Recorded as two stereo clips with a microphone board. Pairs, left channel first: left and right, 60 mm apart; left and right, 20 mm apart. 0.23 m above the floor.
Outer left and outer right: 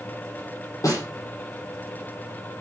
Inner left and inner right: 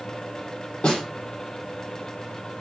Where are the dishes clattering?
No dishes clattering in this recording.